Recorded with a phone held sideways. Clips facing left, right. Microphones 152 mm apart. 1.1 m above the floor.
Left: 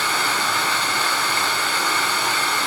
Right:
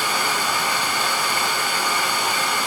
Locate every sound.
0.0 s running water: 15° right (ahead or behind), 1.0 m